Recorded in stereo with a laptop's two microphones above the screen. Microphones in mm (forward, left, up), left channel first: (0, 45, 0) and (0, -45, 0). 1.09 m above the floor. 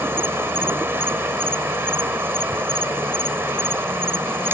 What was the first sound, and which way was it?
An insect, 25° right (ahead or behind).